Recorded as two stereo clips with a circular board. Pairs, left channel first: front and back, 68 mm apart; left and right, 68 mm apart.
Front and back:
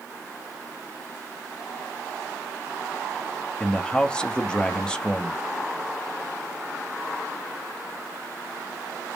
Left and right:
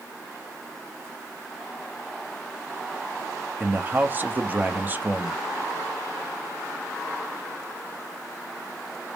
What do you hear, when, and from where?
3.6 s a man speaking: 65° right, 0.6 m